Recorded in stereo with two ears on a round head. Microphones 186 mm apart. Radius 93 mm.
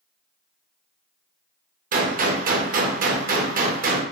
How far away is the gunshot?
About 0.7 m.